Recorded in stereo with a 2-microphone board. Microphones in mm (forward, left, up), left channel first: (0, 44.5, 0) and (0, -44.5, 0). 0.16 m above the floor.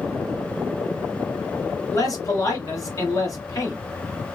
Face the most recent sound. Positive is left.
turn(degrees=40)  # may be behind; listen again after turning